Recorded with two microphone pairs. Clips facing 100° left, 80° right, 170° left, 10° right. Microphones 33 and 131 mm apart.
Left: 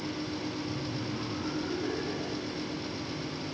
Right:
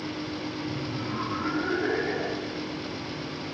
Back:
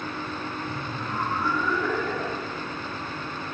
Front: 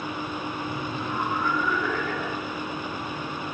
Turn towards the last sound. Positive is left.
turn(degrees=-115)